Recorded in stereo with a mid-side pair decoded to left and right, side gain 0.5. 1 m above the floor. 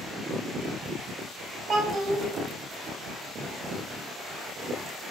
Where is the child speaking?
50° right, 0.9 m.